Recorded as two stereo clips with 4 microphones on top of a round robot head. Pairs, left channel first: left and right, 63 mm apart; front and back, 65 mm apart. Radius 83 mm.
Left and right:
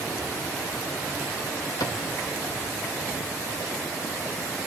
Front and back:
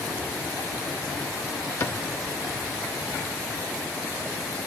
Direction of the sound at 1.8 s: 45° left.